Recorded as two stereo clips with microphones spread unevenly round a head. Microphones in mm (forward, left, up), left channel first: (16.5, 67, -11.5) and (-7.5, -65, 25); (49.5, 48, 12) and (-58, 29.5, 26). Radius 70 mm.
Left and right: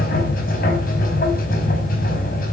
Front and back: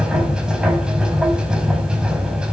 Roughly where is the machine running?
Left.